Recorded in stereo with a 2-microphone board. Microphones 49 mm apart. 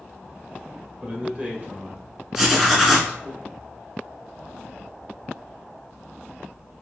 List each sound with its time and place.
1.0 s a man speaking: 15° right (ahead or behind), 0.9 m; by 3.4 s 25° right (ahead or behind), 2 m
2.4 s writing: 10° right (ahead or behind), 1.2 m